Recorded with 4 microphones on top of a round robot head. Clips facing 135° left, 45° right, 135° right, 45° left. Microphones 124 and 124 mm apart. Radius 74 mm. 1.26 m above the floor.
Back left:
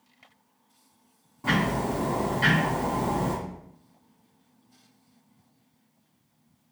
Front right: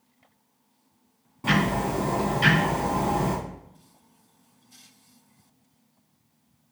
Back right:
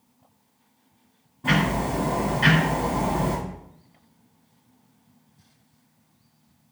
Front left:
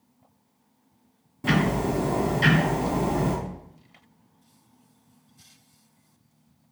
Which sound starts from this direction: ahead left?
Ticking, at 1.4 s.